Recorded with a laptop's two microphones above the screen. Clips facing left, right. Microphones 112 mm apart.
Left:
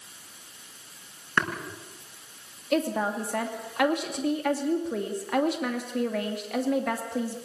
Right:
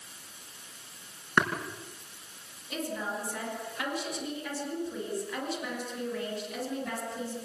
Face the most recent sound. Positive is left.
turn(degrees=70)  # may be behind; listen again after turning